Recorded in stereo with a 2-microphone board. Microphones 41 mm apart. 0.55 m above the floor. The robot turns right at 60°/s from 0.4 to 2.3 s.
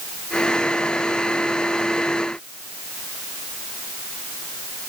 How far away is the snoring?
No snoring in this recording.